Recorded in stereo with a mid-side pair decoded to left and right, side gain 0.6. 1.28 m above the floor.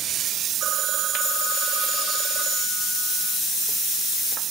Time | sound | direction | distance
0.6 | a phone ringing | 70° right | 3 m